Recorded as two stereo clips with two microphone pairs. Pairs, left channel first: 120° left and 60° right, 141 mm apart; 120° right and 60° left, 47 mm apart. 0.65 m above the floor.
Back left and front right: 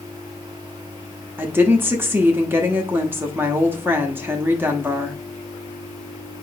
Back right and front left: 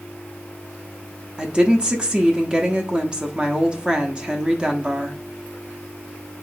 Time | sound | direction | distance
1.4 | a woman speaking | 5° left | 0.7 m